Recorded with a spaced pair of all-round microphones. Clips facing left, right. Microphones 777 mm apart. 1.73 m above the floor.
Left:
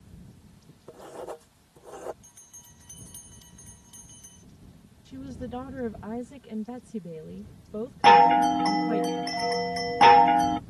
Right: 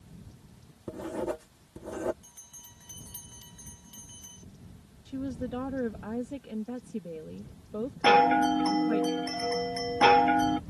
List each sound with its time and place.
0.9 s writing: 70° right (ahead or behind)
2.2 s a bell: 30° right (ahead or behind)
5.0 s a woman speaking: 35° left (ahead or behind)
8.0 s a chime: 40° left (ahead or behind)